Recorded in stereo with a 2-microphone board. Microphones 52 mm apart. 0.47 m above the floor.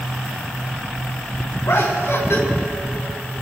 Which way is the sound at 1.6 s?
65° left (ahead or behind).